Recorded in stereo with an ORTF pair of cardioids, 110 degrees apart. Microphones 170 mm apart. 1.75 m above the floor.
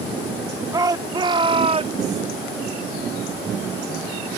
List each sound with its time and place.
0.7 s a shout: 20° right; by 2.2 s 45° right